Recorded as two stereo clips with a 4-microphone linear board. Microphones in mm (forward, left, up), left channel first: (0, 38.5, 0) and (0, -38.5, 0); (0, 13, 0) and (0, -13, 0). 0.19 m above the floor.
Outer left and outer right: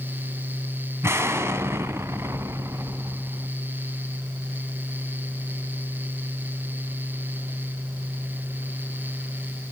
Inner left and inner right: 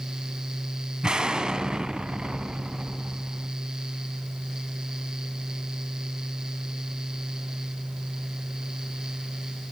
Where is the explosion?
35° right (ahead or behind), 1.0 m.